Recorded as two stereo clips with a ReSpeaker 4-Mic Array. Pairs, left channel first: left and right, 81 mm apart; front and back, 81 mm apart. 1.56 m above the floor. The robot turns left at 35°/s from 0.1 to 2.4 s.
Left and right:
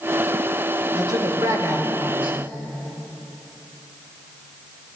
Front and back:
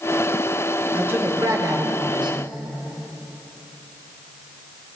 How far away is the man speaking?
About 1.1 m.